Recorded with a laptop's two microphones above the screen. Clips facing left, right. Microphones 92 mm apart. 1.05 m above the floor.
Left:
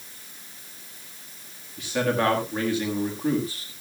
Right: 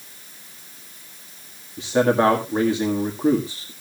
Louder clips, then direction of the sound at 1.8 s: Right 6 dB; 30° right (ahead or behind).